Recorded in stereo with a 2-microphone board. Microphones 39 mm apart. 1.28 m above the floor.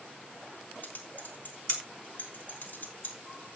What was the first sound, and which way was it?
Typing on a keyboard, 45° left (ahead or behind).